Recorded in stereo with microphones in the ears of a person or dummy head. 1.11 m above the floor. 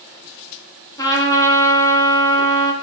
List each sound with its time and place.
1.0 s a trumpet: 15° left (ahead or behind), 1.8 m